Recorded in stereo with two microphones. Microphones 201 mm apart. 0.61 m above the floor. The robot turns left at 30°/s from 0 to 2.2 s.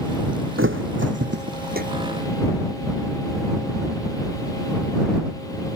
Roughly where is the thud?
Right.